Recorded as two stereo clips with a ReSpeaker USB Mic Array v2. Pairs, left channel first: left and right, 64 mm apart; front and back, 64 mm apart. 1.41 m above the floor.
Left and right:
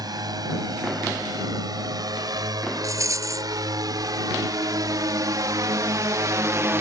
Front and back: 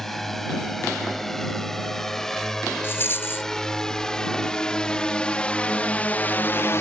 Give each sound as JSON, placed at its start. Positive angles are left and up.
{"t": 0.0, "sound": "a drone", "azimuth_deg": -85}
{"t": 2.8, "sound": "a rattle", "azimuth_deg": -55}